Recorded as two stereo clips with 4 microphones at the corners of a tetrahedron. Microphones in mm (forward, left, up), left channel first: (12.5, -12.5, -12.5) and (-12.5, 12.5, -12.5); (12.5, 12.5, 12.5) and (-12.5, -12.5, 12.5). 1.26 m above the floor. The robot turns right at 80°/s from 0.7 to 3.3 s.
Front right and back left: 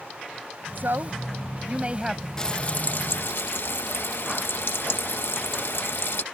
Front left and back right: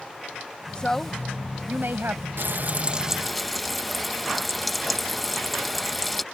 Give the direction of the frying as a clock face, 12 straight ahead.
4 o'clock.